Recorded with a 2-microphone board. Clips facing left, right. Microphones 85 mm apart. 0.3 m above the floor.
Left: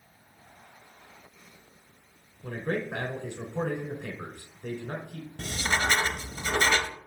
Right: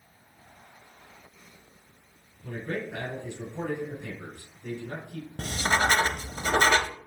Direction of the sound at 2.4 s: 70° left (ahead or behind).